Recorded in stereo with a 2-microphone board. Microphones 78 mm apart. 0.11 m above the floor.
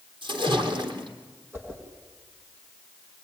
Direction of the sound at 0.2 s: 70° right (ahead or behind).